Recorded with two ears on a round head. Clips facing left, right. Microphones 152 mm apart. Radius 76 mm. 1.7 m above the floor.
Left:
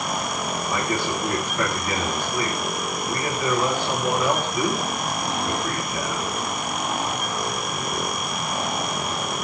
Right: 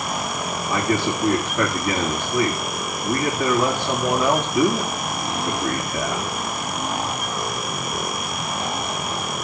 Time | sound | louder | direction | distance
0.7 | a man speaking | right 5 dB | 55° right (ahead or behind) | 4.5 m